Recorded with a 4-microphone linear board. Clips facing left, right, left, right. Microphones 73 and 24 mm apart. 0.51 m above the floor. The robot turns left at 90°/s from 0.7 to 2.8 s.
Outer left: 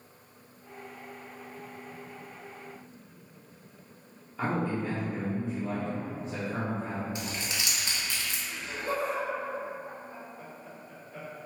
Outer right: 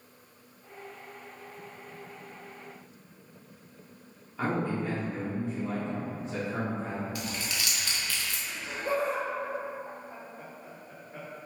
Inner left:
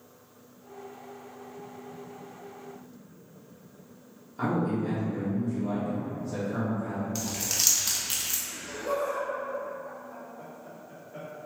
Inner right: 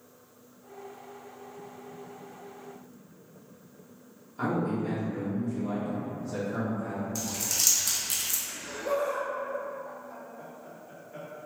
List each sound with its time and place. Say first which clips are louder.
4.4 s a man speaking: even, inner left 1 dB; centre (ahead or behind), 1.1 m
7.2 s crumpling: even, inner left 1 dB; 25° left (ahead or behind), 0.6 m
8.5 s laughter: outer right 3 dB, inner right 1 dB; 45° right (ahead or behind), 1.5 m